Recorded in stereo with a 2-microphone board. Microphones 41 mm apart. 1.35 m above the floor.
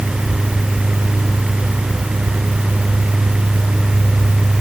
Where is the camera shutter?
No camera shutter in this recording.